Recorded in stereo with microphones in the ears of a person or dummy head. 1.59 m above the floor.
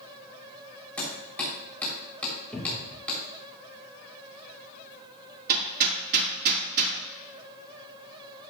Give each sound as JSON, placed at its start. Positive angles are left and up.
{"t": 1.0, "sound": "hammering", "side_deg": 5, "distance_m": 3.5}
{"t": 2.5, "sound": "a cupboard door", "side_deg": 5, "distance_m": 1.6}
{"t": 5.5, "sound": "hammering", "side_deg": -50, "distance_m": 2.0}